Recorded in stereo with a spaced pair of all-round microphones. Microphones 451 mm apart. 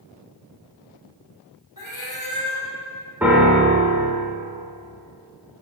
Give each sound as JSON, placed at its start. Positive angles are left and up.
{"t": 1.8, "sound": "a cat meowing", "side_deg": 40, "distance_m": 1.8}
{"t": 3.2, "sound": "a piano", "side_deg": -5, "distance_m": 1.4}